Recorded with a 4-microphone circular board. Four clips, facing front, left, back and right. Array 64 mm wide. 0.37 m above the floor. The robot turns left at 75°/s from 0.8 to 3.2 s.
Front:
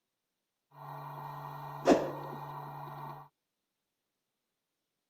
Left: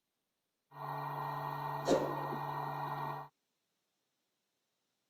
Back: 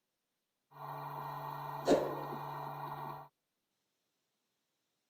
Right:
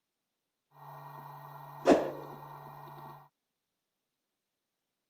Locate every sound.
1.9 s a whoosh: 50° right, 0.5 m; by 2.1 s 75° right, 0.5 m